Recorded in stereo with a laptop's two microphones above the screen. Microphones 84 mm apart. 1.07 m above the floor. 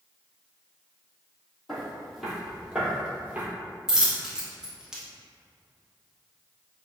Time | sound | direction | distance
1.7 | footsteps | 5° left (ahead or behind) | 1.8 m
3.9 | a dropped coin | 5° right (ahead or behind) | 0.6 m